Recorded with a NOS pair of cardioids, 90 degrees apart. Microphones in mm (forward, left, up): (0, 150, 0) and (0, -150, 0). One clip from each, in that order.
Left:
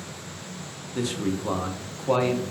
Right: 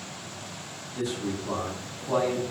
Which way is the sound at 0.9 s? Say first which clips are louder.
Left 3 dB; 50° left.